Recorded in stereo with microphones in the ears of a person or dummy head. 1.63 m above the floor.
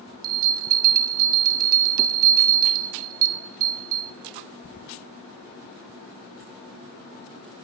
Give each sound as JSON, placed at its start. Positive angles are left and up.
{"t": 0.2, "sound": "a bell", "side_deg": -50, "distance_m": 0.5}